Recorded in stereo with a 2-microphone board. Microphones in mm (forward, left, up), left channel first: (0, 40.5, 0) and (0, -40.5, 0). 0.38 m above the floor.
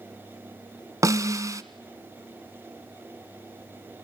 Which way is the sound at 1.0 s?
40° right (ahead or behind).